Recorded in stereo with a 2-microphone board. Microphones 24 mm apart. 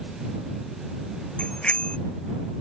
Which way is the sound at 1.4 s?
50° left (ahead or behind).